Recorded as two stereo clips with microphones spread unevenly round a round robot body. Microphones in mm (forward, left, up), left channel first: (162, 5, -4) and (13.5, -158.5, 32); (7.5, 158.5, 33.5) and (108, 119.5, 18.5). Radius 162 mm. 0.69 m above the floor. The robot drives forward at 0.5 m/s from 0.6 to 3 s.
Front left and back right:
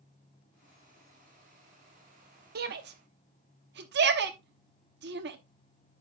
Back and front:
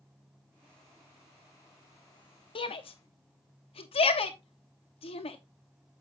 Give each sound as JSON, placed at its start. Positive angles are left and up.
{"t": 2.5, "sound": "a shout", "azimuth_deg": -175, "distance_m": 0.8}